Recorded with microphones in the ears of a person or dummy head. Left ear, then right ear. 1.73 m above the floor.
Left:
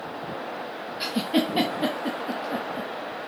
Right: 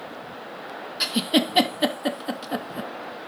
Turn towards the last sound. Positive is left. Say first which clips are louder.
# right 3 dB
turn(degrees=-35)  # may be behind; listen again after turning